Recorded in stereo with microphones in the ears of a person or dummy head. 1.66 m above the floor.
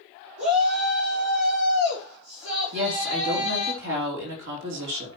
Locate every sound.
0.4 s a shout: 60° right (ahead or behind), 3.5 m
2.7 s a woman speaking: 70° right (ahead or behind), 3 m